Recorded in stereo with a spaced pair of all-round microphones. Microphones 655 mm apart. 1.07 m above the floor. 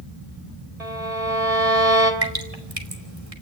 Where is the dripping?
60° right (ahead or behind), 3 m.